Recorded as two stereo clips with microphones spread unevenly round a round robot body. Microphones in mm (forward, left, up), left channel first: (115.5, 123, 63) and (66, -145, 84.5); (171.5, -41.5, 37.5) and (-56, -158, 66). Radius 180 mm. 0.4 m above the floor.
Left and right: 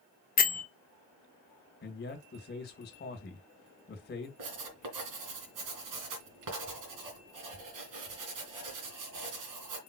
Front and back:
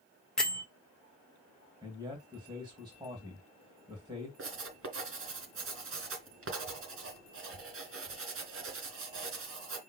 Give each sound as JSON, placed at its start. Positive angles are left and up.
{"t": 0.4, "sound": "a bell", "azimuth_deg": 105, "distance_m": 1.4}
{"t": 1.8, "sound": "a man speaking", "azimuth_deg": 130, "distance_m": 2.0}
{"t": 4.4, "sound": "writing", "azimuth_deg": -115, "distance_m": 3.0}